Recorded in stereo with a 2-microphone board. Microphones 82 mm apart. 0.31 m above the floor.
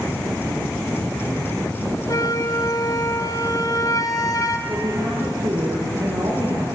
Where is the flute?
50° left (ahead or behind), 1.8 m.